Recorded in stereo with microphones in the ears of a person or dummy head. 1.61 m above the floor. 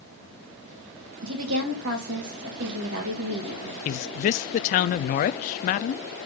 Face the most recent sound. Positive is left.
turn(degrees=45)  # may be behind; listen again after turning